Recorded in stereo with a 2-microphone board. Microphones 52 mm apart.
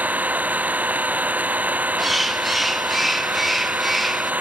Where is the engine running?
30° right (ahead or behind).